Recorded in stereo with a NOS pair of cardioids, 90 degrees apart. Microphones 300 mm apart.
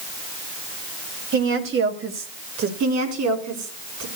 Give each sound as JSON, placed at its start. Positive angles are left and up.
{"t": 1.3, "sound": "a woman speaking", "azimuth_deg": -40, "distance_m": 3.5}
{"t": 2.8, "sound": "a woman speaking", "azimuth_deg": -70, "distance_m": 4.5}